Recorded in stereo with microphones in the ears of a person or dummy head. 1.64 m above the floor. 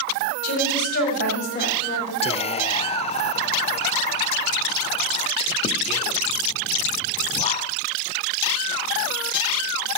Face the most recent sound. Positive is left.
turn(degrees=25)  # may be behind; listen again after turning